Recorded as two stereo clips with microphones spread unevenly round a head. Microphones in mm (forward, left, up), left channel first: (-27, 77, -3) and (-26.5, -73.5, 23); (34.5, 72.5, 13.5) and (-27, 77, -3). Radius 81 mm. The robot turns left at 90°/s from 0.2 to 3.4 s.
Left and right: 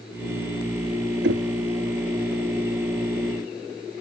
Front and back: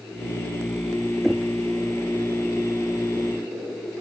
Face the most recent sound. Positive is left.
turn(degrees=75)